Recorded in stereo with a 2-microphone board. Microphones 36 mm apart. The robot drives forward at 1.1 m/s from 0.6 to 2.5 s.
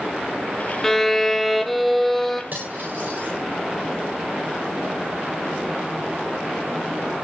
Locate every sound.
0.8 s a violin: 10° left (ahead or behind), 0.6 m; by 2.4 s centre (ahead or behind), 2.5 m
2.5 s cutlery clinking: 50° right (ahead or behind), 10 m